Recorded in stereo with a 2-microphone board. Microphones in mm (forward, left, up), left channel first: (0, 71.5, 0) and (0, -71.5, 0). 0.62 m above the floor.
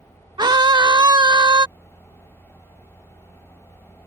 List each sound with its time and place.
0.4 s a scream: 30° right (ahead or behind)